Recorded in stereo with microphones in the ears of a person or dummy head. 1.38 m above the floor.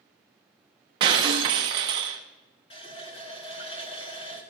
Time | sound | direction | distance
1.0 | breaking glass | 30° right (ahead or behind) | 0.6 m
2.7 | a running tap | 30° left (ahead or behind) | 1.4 m